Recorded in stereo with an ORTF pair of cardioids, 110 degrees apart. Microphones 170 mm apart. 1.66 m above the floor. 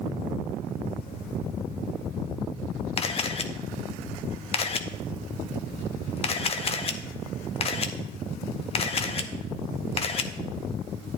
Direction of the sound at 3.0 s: 35° left.